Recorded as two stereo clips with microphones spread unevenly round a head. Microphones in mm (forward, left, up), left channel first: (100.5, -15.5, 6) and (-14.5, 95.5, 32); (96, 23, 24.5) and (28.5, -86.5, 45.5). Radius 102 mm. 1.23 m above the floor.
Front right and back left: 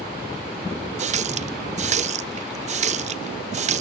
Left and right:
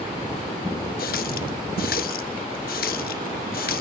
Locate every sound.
1.0 s a running tap: 105° left, 0.8 m